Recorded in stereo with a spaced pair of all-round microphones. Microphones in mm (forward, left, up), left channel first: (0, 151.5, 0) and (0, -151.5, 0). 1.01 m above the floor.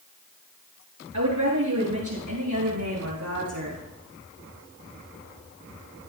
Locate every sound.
1.1 s a woman speaking: 80° right, 9.5 m; by 3.8 s 85° right, 11.5 m